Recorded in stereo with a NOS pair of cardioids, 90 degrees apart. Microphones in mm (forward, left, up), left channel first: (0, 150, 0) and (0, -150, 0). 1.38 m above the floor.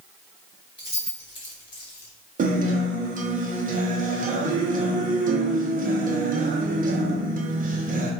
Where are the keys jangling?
15° left, 1.3 m; by 2.1 s 70° left, 1.1 m.